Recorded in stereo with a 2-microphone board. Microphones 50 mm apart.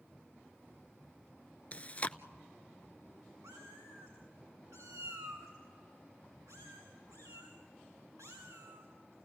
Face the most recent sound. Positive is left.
turn(degrees=-80)